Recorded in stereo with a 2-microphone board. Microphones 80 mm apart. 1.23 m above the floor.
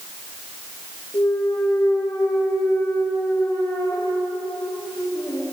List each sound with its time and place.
1.1 s a clunk: 80° left, 2 m